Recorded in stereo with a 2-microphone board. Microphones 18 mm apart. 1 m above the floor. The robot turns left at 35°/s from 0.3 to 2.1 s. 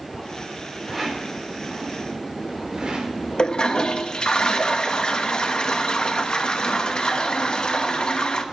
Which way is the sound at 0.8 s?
10° right (ahead or behind).